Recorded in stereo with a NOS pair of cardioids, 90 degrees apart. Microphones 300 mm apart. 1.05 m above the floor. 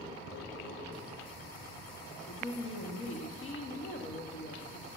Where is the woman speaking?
45° left, 1.7 m.